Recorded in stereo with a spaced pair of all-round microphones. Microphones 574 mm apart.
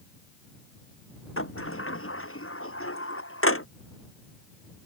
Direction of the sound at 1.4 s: 20° left (ahead or behind).